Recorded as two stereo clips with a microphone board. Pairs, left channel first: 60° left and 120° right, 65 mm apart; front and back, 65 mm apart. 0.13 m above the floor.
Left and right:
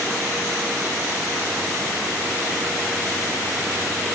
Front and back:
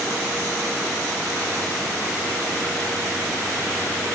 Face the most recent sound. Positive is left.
No sound to turn to.